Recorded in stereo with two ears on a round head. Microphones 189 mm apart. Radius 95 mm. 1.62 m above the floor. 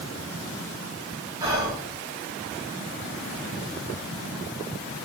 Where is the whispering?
15° right (ahead or behind), 1.1 m.